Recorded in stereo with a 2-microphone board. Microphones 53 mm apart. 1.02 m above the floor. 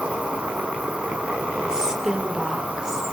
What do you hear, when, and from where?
0.0 s an insect: 25° right (ahead or behind), 5.5 m
1.7 s a woman speaking: 15° right (ahead or behind), 3 m